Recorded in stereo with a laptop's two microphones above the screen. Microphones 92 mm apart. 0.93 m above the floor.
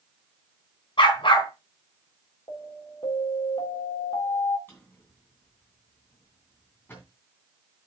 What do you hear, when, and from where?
1.0 s a dog barking: 70° left (ahead or behind), 3.5 m
2.5 s an alarm: 75° left (ahead or behind), 3.5 m
4.7 s a drawer: 25° left (ahead or behind), 3 m